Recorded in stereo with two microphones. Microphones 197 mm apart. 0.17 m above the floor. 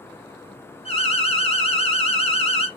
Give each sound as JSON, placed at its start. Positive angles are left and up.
{"t": 0.8, "sound": "an alarm", "side_deg": 30, "distance_m": 2.0}